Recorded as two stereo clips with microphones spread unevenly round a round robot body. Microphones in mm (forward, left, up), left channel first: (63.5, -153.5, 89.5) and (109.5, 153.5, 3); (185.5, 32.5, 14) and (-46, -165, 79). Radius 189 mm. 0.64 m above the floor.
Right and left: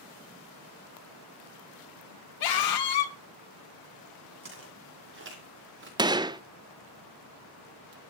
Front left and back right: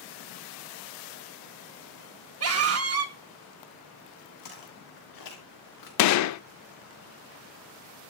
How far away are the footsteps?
About 6.5 m.